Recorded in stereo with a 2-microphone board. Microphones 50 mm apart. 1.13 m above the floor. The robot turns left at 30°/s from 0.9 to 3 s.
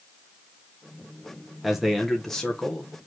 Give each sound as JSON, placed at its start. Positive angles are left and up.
{"t": 1.6, "sound": "a man speaking", "azimuth_deg": -170, "distance_m": 0.8}